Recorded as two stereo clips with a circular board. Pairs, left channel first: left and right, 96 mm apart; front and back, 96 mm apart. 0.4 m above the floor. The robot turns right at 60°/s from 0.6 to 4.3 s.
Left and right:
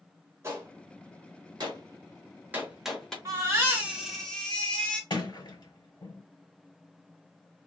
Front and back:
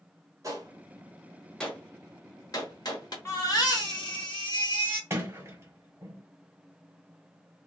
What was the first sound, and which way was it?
A gunshot, 140° right.